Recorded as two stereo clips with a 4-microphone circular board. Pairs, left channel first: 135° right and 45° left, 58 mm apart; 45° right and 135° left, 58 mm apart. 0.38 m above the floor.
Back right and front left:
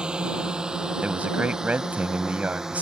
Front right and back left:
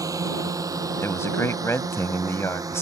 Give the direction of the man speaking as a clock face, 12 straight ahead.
1 o'clock.